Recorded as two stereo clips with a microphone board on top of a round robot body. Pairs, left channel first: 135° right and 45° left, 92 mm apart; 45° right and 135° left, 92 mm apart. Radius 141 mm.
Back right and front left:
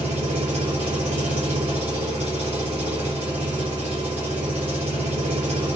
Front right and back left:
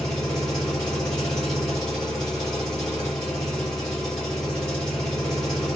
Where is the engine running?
35° left, 1.1 m.